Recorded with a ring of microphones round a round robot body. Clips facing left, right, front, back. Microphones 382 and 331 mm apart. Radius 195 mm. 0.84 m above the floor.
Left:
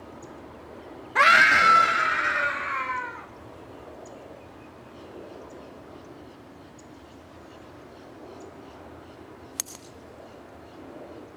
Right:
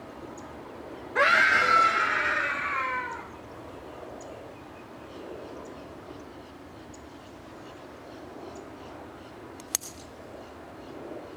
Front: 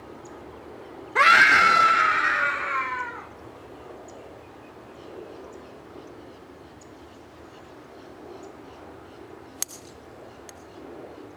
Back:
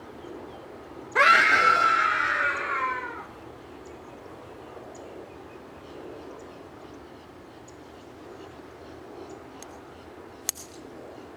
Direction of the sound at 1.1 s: 85° left.